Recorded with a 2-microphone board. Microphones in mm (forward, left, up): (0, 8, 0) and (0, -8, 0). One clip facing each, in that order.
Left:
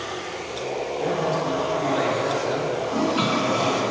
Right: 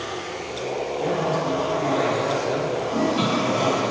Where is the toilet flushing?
30° left (ahead or behind), 1.0 m.